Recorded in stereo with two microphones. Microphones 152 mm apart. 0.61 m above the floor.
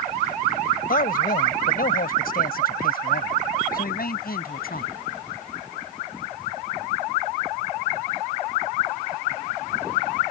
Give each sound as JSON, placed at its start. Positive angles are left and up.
{"t": 0.9, "sound": "a man speaking", "side_deg": 70}